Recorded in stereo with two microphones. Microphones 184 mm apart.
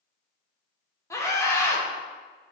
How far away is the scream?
About 0.7 m.